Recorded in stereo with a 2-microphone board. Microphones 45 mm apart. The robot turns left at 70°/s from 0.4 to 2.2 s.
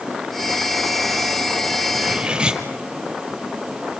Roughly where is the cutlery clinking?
Right.